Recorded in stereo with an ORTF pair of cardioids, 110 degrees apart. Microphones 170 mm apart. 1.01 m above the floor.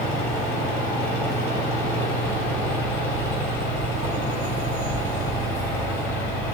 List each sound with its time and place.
0.0 s a fan: 70° left, 2 m